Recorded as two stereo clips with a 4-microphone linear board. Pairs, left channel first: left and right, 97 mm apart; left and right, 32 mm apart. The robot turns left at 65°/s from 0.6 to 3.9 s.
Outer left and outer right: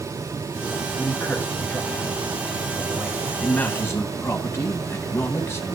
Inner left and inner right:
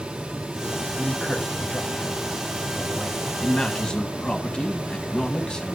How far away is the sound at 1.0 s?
About 1.1 m.